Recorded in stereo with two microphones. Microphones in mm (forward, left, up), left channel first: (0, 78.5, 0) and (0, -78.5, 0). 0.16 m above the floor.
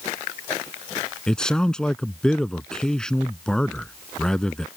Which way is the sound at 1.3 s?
5° left (ahead or behind).